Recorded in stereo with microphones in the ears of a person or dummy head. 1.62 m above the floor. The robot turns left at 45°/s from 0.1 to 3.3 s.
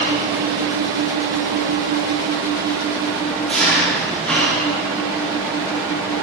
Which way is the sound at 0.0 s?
40° right.